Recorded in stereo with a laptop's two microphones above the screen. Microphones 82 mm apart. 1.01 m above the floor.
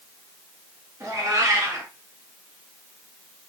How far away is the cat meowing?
About 1.4 m.